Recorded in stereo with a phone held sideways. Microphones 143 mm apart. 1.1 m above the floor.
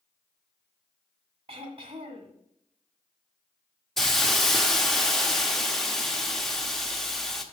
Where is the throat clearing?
40° right (ahead or behind), 1.4 m.